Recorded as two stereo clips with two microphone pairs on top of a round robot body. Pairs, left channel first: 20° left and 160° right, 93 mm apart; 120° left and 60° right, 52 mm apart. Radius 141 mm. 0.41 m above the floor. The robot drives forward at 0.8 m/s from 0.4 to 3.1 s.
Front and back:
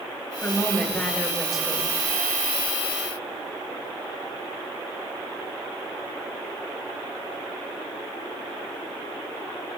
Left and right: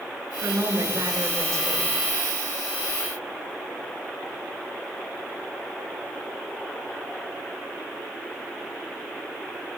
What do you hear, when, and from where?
0.4 s a woman speaking: 55° right, 3.5 m; by 1.9 s 75° right, 3 m